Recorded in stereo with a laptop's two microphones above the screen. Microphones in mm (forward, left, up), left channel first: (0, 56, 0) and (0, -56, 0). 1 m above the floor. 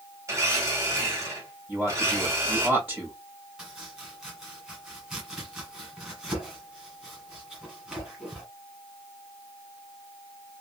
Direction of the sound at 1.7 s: 5° right (ahead or behind).